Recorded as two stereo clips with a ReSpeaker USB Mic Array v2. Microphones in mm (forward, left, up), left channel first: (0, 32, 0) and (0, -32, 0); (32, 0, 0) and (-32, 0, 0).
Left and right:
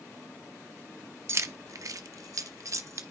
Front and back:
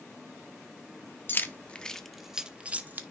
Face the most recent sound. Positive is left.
turn(degrees=-125)